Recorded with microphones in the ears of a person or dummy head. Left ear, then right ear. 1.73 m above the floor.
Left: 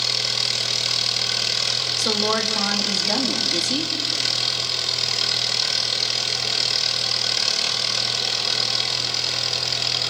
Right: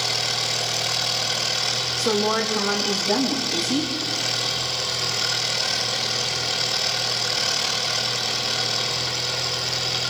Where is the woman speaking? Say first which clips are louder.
Even; 40° left (ahead or behind), 4 m.